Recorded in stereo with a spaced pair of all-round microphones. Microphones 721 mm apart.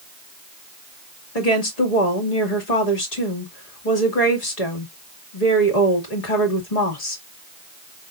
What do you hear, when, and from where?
1.4 s a woman speaking: 65° left (ahead or behind), 1.9 m